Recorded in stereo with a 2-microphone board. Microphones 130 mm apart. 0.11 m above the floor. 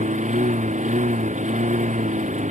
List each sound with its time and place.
0.0 s a lawn mower: 70° right (ahead or behind)